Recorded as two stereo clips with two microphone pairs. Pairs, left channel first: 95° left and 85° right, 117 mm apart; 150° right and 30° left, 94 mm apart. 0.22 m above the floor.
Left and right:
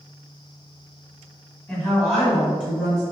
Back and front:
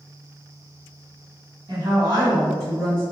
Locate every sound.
1.7 s a woman speaking: 15° left, 2.0 m; by 3.0 s 15° right, 3 m